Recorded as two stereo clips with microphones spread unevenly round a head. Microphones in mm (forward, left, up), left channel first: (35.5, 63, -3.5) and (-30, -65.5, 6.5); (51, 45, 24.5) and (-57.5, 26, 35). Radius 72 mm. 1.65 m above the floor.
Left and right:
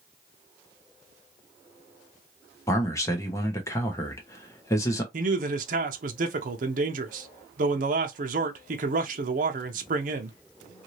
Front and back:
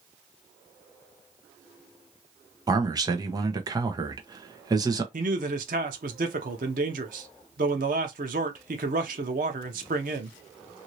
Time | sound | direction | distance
2.7 | a man speaking | 135° left | 1.0 m
5.1 | a man speaking | 150° right | 0.7 m